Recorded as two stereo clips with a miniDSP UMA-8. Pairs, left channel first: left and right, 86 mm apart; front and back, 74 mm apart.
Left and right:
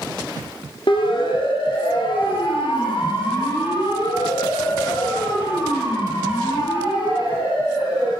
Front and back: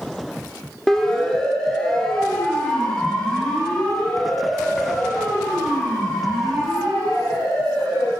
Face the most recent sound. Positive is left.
turn(degrees=75)